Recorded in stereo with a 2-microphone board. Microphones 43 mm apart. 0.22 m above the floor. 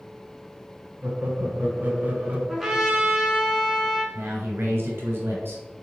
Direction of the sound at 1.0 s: 50° right (ahead or behind).